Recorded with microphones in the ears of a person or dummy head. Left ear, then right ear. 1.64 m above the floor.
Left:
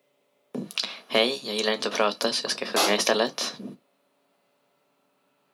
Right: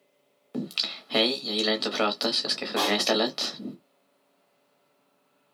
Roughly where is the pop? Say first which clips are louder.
Left 3 dB; left.